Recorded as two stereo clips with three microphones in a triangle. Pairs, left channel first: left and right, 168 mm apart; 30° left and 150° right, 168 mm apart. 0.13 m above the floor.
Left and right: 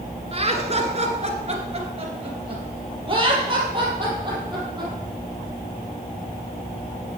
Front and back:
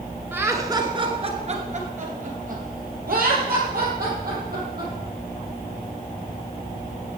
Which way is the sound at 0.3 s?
80° right.